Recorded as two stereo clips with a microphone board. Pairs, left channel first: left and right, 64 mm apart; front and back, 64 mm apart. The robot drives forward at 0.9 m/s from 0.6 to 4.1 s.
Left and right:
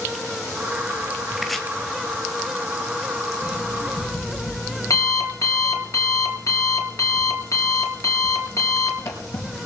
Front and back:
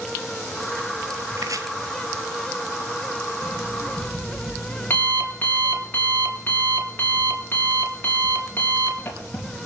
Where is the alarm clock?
50° left, 5 m; by 9.7 s 55° left, 4.5 m.